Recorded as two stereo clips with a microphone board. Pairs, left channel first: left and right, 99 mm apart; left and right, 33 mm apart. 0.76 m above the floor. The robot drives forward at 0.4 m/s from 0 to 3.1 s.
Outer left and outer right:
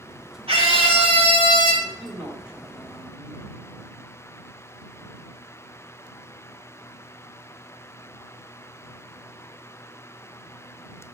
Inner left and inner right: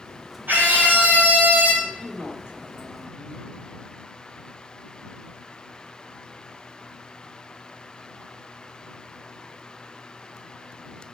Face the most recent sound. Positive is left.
turn(degrees=-10)  # may be behind; listen again after turning